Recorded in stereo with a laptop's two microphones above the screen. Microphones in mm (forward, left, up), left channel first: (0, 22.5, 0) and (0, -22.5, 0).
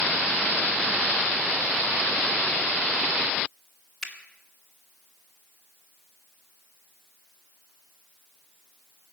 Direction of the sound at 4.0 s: 5° left (ahead or behind).